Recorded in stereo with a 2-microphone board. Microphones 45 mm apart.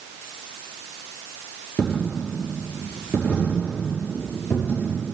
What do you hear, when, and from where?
1.8 s a dropped coin: 25° left (ahead or behind), 6 m